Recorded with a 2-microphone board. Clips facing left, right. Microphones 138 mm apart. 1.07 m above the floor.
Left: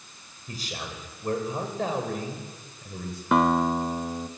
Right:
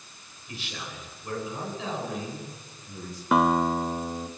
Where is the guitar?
Centre (ahead or behind), 0.8 m.